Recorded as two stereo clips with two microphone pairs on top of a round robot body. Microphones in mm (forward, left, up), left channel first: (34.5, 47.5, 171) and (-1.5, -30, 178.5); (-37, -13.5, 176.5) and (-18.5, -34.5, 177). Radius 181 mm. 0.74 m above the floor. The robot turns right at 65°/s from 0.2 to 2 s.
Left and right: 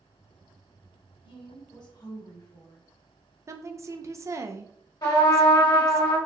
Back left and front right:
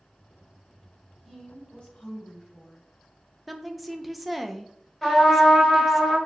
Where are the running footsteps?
I don't hear running footsteps.